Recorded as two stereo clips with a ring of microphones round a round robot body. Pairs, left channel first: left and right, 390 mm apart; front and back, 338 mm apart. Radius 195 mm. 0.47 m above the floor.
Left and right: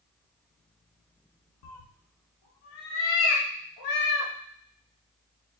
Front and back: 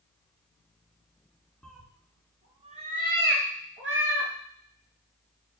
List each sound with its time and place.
1.6 s a cat meowing: 90° left, 1.3 m; by 4.3 s 130° left, 2 m